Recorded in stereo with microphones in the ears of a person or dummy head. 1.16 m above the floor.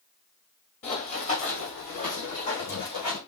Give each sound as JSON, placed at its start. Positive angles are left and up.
{"t": 0.8, "sound": "running footsteps", "side_deg": 35, "distance_m": 1.9}